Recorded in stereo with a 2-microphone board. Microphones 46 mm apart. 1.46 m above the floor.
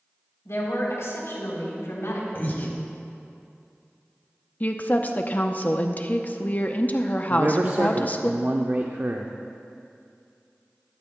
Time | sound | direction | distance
0.5 | a woman speaking | 85° left | 3.5 m
2.4 | breathing | 45° left (ahead or behind) | 1.3 m
4.6 | a woman speaking | 35° left (ahead or behind) | 0.6 m
7.3 | a man speaking | 45° right (ahead or behind) | 0.5 m